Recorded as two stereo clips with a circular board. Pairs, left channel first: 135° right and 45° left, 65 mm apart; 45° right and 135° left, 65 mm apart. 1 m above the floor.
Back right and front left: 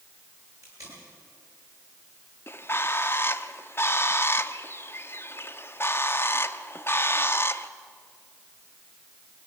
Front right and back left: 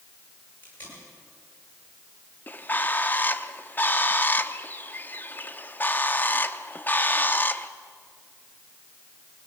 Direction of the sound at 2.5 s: 100° right.